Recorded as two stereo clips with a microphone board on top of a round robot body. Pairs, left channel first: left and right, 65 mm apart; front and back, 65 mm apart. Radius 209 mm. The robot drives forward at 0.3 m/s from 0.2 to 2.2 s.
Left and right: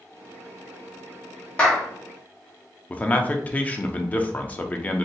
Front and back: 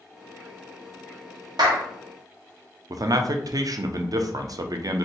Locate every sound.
1.6 s a clap: 165° left, 0.9 m
2.9 s a man speaking: 155° left, 0.5 m